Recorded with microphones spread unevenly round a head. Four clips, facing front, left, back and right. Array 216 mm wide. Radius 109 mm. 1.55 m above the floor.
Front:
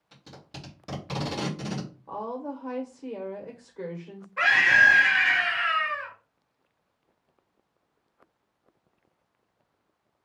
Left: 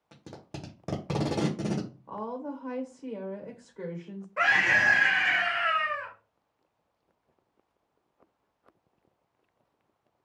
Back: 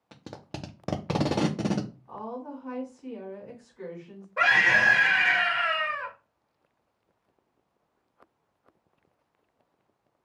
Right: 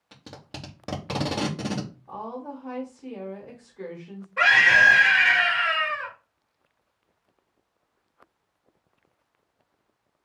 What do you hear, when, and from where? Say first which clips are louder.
0.1 s tape being pulled: right 1 dB, back 6 dB; straight behind, 0.7 m
2.1 s a woman speaking: even, front 3 dB; 35° left, 1.3 m
4.4 s a scream: right 6 dB, front 2 dB; 160° left, 1.7 m